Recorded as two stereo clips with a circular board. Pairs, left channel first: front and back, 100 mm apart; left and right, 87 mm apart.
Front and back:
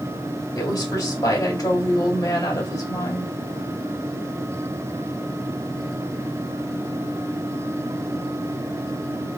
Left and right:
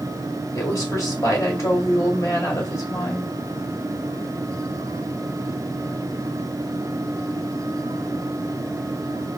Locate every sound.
0.6 s a woman speaking: 45° left, 2.5 m